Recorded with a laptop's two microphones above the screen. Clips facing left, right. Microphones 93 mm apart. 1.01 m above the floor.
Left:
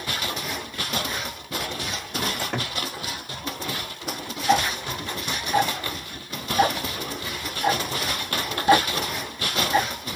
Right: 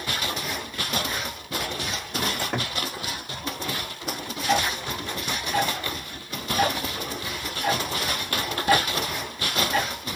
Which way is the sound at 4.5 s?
20° left (ahead or behind).